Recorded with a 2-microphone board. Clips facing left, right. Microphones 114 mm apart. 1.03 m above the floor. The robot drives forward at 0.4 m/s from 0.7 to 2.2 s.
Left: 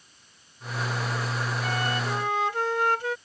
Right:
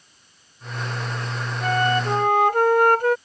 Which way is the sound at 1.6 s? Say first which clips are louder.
Right 11 dB; 50° right (ahead or behind).